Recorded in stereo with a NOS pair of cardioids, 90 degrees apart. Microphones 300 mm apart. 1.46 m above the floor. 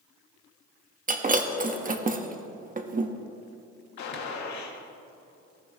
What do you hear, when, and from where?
1.1 s breaking glass: 30° right, 1.6 m
4.0 s a gunshot: 65° left, 2.5 m